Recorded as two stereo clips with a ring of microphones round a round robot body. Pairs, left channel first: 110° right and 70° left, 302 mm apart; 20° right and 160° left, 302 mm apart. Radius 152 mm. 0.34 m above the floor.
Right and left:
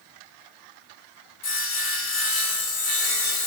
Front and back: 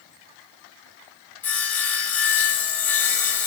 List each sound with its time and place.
1.4 s sawing: 110° right, 1.5 m